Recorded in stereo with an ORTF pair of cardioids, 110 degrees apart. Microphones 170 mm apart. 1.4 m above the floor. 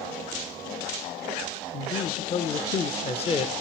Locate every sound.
1.7 s a man speaking: 35° left, 1.2 m